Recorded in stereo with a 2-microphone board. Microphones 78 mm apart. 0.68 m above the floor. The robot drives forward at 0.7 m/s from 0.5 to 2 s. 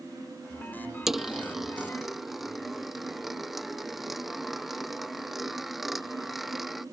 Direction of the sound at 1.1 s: 5° right (ahead or behind).